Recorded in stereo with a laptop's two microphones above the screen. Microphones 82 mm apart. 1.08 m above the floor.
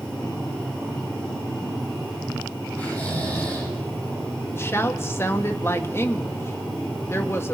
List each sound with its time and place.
2.8 s snoring: 20° left (ahead or behind), 8.5 m
4.5 s a woman speaking: 30° left (ahead or behind), 1.8 m